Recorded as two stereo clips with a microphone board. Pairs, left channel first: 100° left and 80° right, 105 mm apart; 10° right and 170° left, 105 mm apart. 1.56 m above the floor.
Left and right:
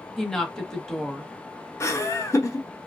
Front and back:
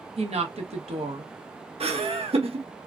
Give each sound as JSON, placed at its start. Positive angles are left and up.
{"t": 0.2, "sound": "a woman speaking", "azimuth_deg": -175, "distance_m": 1.0}
{"t": 1.8, "sound": "laughter", "azimuth_deg": 160, "distance_m": 0.9}